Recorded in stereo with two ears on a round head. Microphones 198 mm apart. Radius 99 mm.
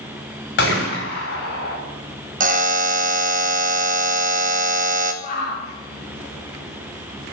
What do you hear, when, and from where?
0.6 s a gunshot: 60° left (ahead or behind), 5.5 m
2.4 s a buzzer: 40° right (ahead or behind), 1.1 m
5.2 s a shout: 40° left (ahead or behind), 8 m